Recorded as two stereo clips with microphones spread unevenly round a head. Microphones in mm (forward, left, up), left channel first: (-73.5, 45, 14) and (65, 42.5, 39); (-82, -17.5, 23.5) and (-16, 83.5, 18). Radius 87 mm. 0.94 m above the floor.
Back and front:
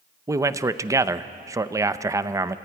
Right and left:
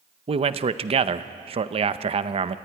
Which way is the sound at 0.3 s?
70° left.